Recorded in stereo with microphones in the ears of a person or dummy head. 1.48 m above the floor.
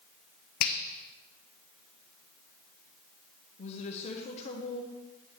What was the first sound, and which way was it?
A finger snap, 50° left (ahead or behind).